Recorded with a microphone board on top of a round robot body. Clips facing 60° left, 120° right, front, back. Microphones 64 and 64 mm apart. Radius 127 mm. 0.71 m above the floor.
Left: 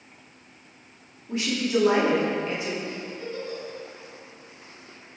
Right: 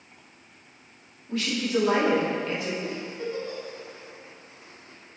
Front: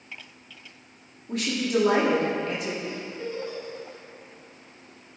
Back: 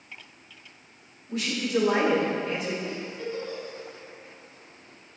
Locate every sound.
1.3 s a woman speaking: 5° right, 1.9 m
2.8 s a giggle: 60° right, 1.9 m